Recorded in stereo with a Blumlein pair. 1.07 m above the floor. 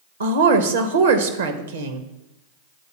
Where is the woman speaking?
70° right, 0.8 m.